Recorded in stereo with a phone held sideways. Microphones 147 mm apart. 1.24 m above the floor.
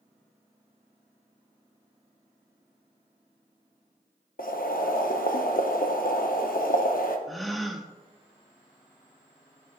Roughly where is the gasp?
Centre.